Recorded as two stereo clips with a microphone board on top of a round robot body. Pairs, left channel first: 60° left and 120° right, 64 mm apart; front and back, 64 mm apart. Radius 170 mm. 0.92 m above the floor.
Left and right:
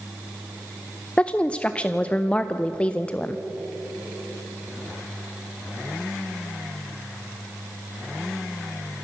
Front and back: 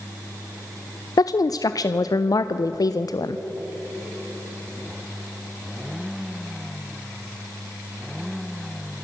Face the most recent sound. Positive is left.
turn(degrees=-10)